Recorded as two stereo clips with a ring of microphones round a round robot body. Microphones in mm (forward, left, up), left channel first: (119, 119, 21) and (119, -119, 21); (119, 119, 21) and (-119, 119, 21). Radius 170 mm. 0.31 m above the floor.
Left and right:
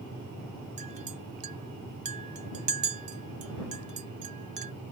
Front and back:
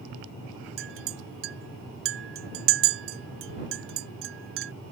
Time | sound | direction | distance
0.8 | a clink | 150° right | ?